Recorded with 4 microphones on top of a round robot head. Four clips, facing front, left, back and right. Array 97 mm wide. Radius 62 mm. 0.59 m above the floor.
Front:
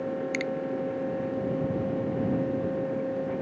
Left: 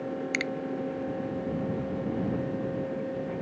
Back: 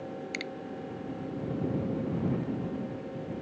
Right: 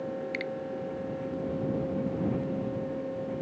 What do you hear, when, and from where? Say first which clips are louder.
0.3 s a finger snap: left 2 dB, front 8 dB; 95° left